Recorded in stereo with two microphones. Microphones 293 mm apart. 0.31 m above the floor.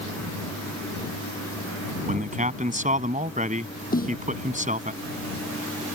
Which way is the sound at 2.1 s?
25° right (ahead or behind).